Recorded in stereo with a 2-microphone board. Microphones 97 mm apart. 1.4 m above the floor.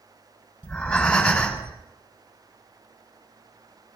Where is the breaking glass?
I don't hear breaking glass.